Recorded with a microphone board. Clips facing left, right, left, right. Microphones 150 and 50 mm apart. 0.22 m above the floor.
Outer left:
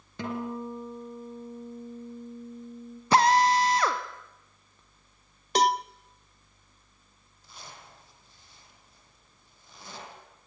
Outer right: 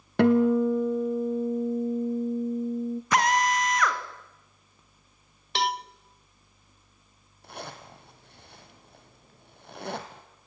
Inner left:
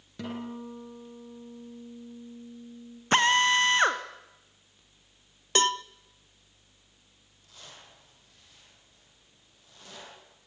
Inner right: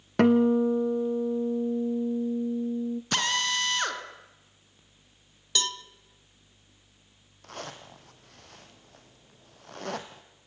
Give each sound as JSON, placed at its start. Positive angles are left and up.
{"t": 0.2, "sound": "a guitar", "side_deg": -75, "distance_m": 1.3}
{"t": 3.1, "sound": "a drill", "side_deg": 30, "distance_m": 1.4}
{"t": 5.5, "sound": "a cowbell", "side_deg": 45, "distance_m": 0.5}
{"t": 7.4, "sound": "a zipper", "side_deg": -70, "distance_m": 2.5}